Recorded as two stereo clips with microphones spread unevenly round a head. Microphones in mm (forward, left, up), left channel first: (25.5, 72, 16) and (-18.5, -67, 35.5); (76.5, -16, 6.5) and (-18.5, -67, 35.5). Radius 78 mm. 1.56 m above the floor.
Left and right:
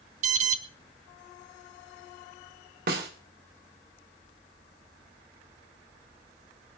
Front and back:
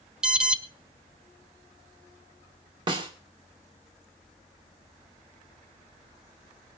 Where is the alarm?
80° right, 0.8 m.